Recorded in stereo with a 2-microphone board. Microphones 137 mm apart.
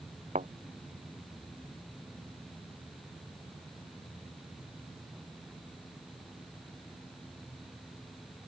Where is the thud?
65° right (ahead or behind).